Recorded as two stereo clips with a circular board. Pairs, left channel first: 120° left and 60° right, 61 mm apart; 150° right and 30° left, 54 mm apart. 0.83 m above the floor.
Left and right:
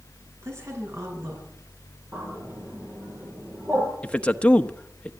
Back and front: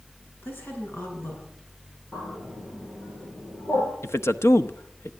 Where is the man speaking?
170° right, 1.1 m.